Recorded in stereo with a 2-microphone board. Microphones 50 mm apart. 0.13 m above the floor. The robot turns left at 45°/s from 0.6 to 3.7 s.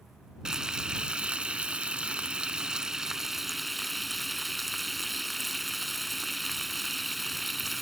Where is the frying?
15° right (ahead or behind); by 7.8 s centre (ahead or behind).